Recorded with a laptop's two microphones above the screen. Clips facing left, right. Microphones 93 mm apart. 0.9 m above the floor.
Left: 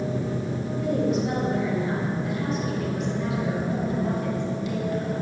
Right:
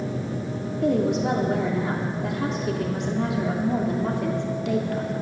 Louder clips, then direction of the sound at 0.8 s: Right 3 dB; 75° right (ahead or behind).